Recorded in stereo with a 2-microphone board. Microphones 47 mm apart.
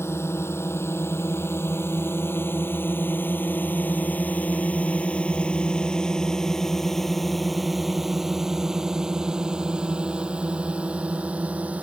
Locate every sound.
0.0 s a drone: 65° left (ahead or behind); by 11.8 s 30° right (ahead or behind)